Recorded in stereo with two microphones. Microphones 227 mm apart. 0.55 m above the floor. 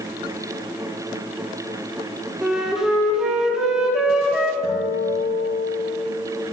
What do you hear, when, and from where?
2.4 s a flute: 5° right (ahead or behind), 1.3 m
4.6 s a guitar: 40° left (ahead or behind), 3.5 m